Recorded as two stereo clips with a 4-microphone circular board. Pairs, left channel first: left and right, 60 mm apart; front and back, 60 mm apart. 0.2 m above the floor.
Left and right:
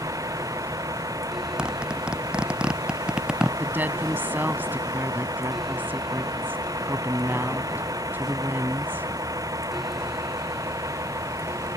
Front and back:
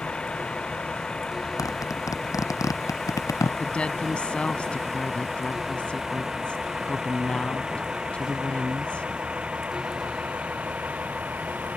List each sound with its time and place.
0.0 s a vehicle: 75° right; by 11.8 s 115° right
1.6 s a zipper: 15° right
3.6 s a woman speaking: 55° right